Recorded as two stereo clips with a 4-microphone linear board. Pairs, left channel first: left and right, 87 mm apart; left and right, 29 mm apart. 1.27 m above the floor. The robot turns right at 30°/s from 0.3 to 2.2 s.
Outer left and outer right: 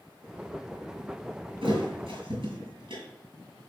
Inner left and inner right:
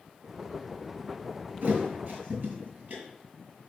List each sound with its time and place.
1.6 s a thud: 80° right, 6 m; by 3.0 s 70° right (ahead or behind), 6 m